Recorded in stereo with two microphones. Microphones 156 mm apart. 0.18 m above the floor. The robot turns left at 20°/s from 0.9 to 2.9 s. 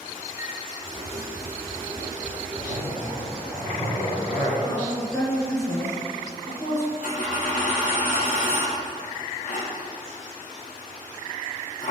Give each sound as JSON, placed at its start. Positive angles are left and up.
{"t": 0.4, "sound": "a flute", "side_deg": -25, "distance_m": 1.3}
{"t": 2.5, "sound": "a zipper", "side_deg": 45, "distance_m": 2.5}
{"t": 4.6, "sound": "a woman speaking", "side_deg": 20, "distance_m": 1.8}
{"t": 7.0, "sound": "a dropped coin", "side_deg": 60, "distance_m": 2.0}